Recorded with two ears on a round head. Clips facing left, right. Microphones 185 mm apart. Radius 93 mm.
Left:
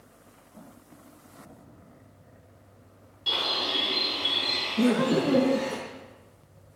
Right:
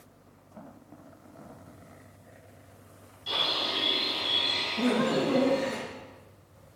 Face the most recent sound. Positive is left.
turn(degrees=35)  # may be behind; listen again after turning